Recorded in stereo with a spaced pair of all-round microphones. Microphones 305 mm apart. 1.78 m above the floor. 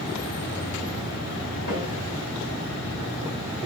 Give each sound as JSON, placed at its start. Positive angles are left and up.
{"t": 1.7, "sound": "a snare drum", "side_deg": 70, "distance_m": 2.5}